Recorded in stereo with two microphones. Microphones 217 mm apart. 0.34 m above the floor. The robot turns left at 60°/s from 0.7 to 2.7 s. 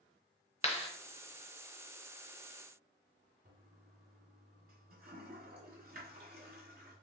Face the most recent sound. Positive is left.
turn(degrees=-45)  # may be behind; listen again after turning